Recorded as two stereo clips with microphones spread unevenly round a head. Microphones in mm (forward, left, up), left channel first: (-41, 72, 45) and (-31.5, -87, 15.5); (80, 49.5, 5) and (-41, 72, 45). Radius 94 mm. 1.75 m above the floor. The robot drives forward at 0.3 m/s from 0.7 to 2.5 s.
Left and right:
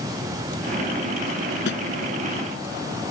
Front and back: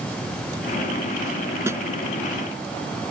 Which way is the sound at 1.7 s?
105° left.